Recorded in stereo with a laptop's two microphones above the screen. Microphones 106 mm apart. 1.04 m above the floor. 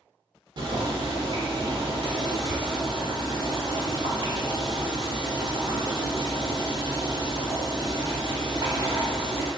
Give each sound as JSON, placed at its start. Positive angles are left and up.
{"t": 0.6, "sound": "boiling", "side_deg": -45, "distance_m": 1.0}